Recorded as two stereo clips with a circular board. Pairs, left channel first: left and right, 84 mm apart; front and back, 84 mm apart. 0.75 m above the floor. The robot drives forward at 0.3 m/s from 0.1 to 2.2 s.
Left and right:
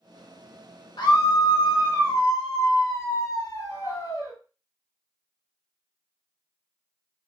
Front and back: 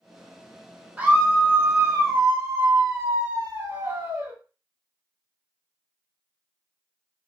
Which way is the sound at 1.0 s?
110° left.